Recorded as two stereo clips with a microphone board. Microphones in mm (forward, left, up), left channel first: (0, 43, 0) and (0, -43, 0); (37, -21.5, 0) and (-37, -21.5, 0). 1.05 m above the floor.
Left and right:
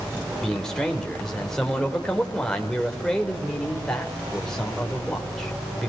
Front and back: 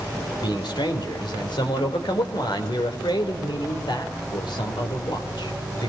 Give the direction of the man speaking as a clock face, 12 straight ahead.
12 o'clock.